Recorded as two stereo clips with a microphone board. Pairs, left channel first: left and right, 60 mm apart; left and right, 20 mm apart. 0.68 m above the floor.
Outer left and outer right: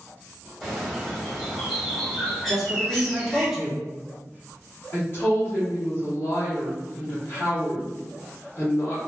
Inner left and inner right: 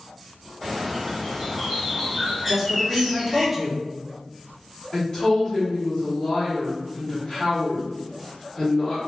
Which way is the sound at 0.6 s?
5° left (ahead or behind).